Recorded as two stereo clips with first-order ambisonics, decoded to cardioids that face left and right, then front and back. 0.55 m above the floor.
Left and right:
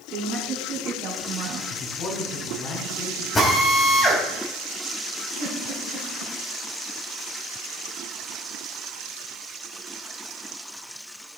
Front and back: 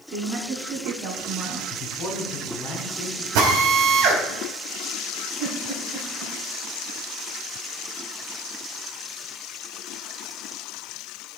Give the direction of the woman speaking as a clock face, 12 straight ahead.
4 o'clock.